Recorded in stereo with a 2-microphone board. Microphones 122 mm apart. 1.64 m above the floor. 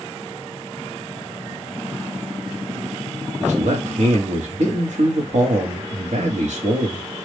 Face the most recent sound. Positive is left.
turn(degrees=-75)  # may be behind; listen again after turning